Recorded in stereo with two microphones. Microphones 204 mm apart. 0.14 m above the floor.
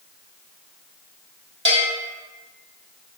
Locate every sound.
1.6 s a bell: 70° right (ahead or behind), 1.2 m